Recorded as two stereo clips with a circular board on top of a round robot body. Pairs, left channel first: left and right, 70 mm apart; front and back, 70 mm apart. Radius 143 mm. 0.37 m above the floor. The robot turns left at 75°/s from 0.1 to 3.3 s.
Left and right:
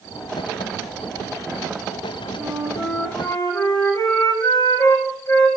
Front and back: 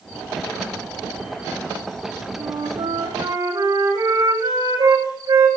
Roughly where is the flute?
Behind right.